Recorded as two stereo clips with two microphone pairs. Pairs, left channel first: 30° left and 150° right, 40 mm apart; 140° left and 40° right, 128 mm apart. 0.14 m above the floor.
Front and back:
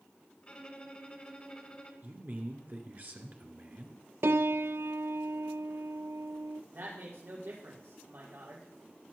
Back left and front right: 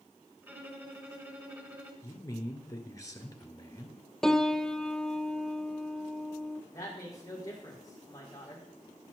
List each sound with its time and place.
0.4 s a violin: 15° left, 1.4 m
2.0 s a man speaking: 165° right, 2 m
4.2 s a piano: 140° right, 0.5 m
6.7 s a woman speaking: 160° right, 5.5 m